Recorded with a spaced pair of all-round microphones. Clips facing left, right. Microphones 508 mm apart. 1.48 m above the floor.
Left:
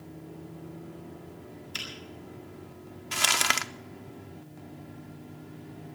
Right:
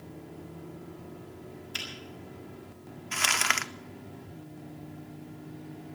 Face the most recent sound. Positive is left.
turn(degrees=60)  # may be behind; listen again after turning